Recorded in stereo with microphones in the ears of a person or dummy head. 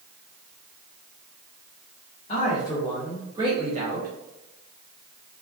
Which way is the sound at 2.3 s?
30° left (ahead or behind).